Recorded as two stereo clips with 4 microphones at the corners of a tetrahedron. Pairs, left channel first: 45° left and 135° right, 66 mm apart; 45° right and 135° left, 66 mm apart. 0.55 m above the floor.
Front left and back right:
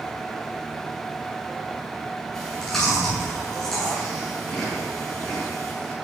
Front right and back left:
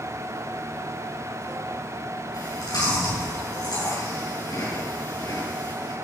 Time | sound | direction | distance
2.3 | chewing | 35° right | 8.5 m